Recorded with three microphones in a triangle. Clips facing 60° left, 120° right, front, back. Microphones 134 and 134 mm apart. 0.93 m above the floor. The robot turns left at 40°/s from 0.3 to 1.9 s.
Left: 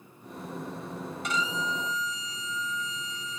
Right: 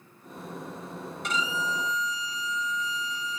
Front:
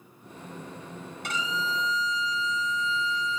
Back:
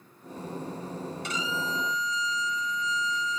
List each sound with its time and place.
1.2 s a violin: 25° right, 1.8 m; by 3.4 s 50° right, 1.8 m